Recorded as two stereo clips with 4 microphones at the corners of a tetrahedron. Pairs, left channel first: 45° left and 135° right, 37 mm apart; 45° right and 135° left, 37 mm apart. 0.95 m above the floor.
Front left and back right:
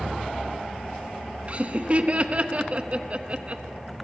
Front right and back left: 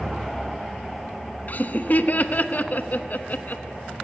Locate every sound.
1.5 s laughter: 85° right, 0.9 m